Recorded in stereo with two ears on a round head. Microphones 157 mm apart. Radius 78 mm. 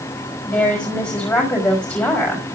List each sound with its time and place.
0.5 s a woman speaking: 15° left (ahead or behind), 4.5 m